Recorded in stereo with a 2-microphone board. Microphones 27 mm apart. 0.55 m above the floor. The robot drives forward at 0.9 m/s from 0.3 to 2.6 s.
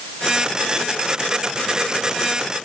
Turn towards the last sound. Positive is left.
No sound to turn to.